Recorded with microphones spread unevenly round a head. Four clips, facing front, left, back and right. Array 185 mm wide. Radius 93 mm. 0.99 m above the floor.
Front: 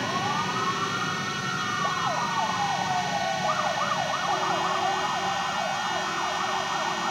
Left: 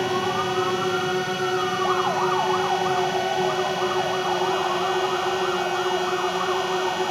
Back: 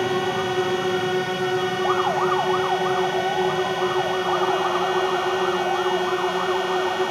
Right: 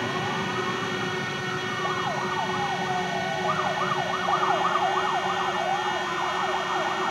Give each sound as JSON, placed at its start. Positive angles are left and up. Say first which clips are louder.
{"t": 0.0, "sound": "a drone", "louder": "left 5 dB, back 5 dB", "azimuth_deg": 150}